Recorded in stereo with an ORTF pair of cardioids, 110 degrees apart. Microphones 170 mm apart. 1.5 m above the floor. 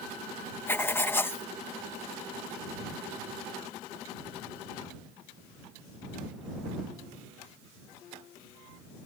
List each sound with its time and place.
0.7 s writing: 15° left